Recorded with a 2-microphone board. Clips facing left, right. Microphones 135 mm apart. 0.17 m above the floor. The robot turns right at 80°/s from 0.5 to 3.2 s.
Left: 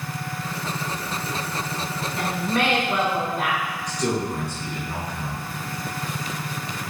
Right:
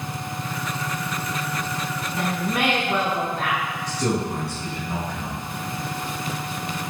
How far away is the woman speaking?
About 1.1 m.